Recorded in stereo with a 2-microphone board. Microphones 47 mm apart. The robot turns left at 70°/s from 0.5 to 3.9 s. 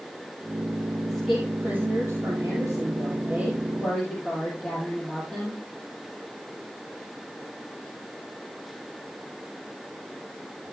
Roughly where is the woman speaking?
Ahead.